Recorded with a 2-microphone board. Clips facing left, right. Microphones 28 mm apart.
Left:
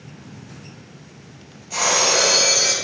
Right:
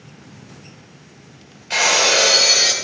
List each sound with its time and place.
1.7 s breaking glass: 75° right (ahead or behind), 1.6 m